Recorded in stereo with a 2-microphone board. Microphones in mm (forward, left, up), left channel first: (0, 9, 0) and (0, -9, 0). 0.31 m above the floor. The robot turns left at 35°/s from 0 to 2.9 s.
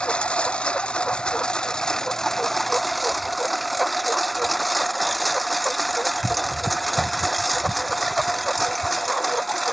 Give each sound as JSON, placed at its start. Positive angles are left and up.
{"t": 0.0, "sound": "a lawn mower", "azimuth_deg": 110}